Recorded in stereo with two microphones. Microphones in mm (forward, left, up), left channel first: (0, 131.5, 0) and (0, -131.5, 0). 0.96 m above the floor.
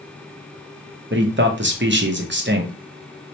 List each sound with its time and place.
1.1 s a man speaking: 45° right (ahead or behind), 0.7 m